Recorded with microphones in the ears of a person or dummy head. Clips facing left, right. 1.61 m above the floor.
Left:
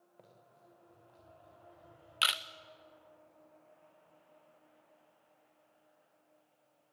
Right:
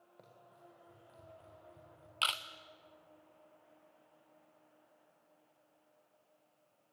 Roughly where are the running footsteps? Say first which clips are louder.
Right 1 dB; centre.